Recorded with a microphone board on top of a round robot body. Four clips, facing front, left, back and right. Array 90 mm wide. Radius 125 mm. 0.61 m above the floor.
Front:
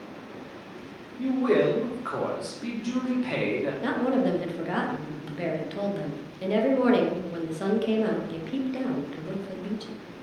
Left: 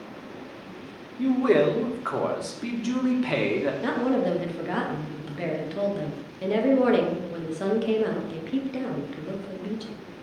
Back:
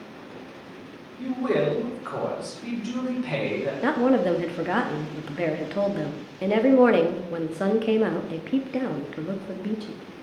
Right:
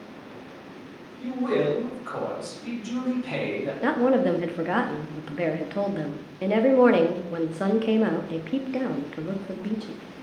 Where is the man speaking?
90° left, 1.0 m.